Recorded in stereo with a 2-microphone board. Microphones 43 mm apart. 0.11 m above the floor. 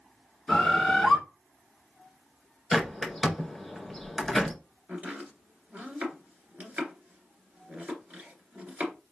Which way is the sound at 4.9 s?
35° right (ahead or behind).